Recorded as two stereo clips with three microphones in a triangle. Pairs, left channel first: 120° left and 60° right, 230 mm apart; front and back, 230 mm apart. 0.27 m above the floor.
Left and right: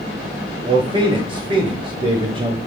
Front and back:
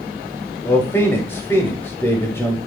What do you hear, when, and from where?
0.7 s a man speaking: 60° right, 0.9 m